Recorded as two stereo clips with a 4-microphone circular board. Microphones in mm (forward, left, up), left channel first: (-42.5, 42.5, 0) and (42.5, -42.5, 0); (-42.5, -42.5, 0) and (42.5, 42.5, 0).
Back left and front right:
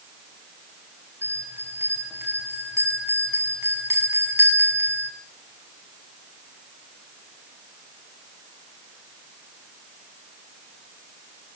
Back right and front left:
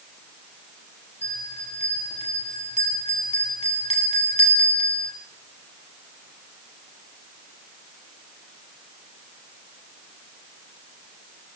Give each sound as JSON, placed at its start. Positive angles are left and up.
{"t": 1.2, "sound": "a bell", "azimuth_deg": -115, "distance_m": 5.5}